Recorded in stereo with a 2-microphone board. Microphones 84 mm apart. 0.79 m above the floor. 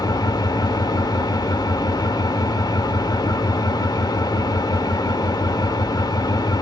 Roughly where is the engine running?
Left.